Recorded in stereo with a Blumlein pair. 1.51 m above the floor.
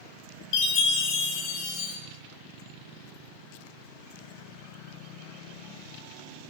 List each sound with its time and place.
0.5 s a chime: 40° left, 1.0 m